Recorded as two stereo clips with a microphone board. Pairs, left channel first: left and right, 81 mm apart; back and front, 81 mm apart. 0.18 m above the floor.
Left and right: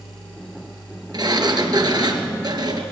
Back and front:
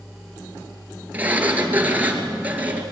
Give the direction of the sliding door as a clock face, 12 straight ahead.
2 o'clock.